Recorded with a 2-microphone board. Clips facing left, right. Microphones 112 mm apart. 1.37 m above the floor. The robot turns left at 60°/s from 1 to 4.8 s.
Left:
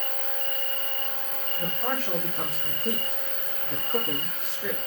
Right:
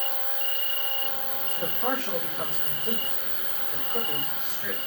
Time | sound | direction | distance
0.0 | an insect | 165° left | 1.7 m
1.6 | a man speaking | 150° right | 2.5 m